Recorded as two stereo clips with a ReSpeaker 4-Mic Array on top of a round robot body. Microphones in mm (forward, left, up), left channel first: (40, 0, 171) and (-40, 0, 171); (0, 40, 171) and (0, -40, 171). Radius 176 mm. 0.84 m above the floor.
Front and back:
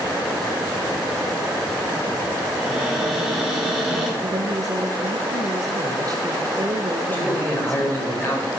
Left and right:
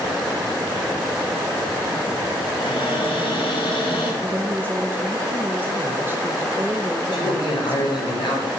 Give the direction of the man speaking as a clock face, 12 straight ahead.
10 o'clock.